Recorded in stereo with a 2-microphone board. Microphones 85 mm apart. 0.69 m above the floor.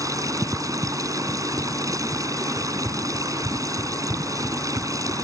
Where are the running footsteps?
55° right (ahead or behind).